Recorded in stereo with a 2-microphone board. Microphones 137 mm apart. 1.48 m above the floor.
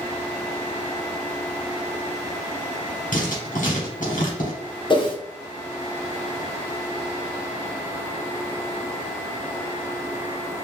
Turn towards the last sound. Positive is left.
turn(degrees=35)  # may be behind; listen again after turning